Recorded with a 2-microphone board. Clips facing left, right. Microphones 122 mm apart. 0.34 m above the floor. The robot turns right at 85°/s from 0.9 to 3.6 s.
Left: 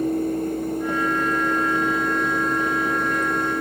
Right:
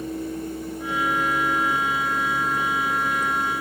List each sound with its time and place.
Only background noise.